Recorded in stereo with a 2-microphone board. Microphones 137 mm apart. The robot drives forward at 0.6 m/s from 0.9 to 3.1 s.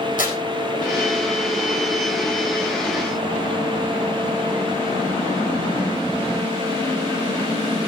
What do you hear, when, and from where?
0.2 s tearing paper: 70° left (ahead or behind), 4.5 m